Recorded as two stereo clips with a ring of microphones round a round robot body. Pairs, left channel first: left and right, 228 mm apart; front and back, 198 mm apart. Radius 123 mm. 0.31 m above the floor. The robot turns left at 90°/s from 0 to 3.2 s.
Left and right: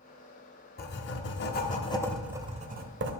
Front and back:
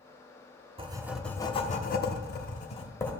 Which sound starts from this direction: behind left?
Writing, at 0.8 s.